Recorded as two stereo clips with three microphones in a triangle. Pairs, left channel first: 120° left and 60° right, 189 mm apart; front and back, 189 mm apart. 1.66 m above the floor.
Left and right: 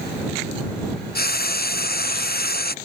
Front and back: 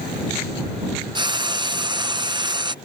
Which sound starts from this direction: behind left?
Frying, at 1.1 s.